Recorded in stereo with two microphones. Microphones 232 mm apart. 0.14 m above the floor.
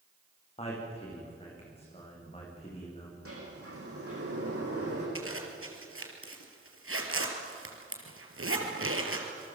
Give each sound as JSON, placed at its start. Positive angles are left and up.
{"t": 0.6, "sound": "a man speaking", "side_deg": 25, "distance_m": 8.5}
{"t": 3.2, "sound": "a sliding door", "side_deg": -75, "distance_m": 9.0}
{"t": 5.2, "sound": "a zipper", "side_deg": -65, "distance_m": 3.0}